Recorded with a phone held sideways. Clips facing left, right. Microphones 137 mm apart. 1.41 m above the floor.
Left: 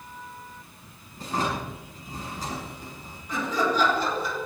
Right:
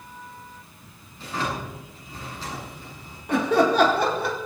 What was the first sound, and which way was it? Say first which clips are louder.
A drawer: left 1 dB; 45° left (ahead or behind).